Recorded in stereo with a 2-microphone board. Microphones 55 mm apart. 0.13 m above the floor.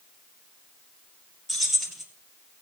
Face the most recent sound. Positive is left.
turn(degrees=-5)  # may be behind; listen again after turning